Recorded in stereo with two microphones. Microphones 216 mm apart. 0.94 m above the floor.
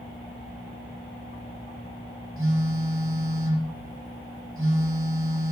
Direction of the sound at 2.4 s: 75° right (ahead or behind).